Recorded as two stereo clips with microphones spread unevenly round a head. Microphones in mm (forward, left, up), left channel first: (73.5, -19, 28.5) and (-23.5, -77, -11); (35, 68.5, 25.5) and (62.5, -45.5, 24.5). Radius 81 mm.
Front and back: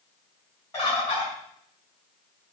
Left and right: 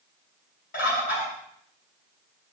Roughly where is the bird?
Left.